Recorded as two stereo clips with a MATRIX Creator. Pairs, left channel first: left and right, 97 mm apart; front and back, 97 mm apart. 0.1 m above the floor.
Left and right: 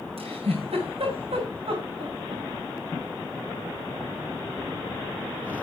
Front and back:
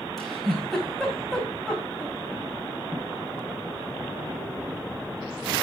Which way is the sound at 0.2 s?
90° right.